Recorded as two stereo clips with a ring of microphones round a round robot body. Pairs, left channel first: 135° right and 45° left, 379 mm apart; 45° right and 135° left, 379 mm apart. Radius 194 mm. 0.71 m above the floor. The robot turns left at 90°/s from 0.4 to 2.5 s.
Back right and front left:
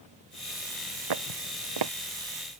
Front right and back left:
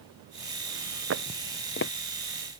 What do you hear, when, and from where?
1.1 s footsteps: 80° left; by 1.9 s 5° left